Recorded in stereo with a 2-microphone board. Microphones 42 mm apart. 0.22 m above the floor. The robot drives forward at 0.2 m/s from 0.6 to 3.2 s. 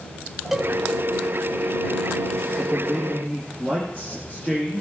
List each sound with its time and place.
0.5 s a cowbell: 5° right (ahead or behind), 1.0 m
2.6 s a man speaking: 35° left (ahead or behind), 3 m; by 4.8 s 30° left (ahead or behind), 3 m